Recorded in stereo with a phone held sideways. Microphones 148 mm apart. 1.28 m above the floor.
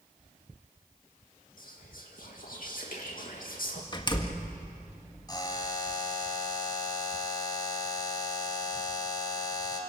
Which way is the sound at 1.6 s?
70° left (ahead or behind).